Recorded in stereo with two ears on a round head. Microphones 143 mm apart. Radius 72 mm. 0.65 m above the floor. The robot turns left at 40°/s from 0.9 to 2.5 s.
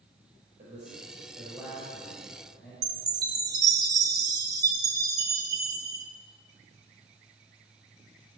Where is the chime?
25° right (ahead or behind), 1.2 m.